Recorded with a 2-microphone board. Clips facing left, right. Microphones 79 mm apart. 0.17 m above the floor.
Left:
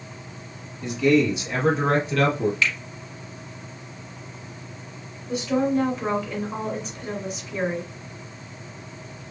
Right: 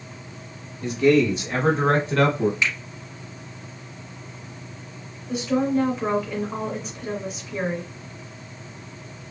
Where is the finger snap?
20° right (ahead or behind), 1.0 m.